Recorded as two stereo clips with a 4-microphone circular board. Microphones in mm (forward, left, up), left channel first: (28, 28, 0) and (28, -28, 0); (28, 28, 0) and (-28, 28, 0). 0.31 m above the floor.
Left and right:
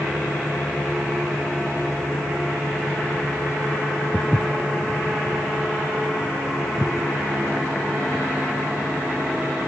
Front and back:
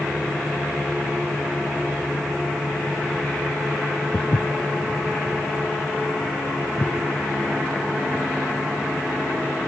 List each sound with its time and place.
4.1 s footsteps: 20° right, 0.6 m; by 8.2 s 30° right, 4 m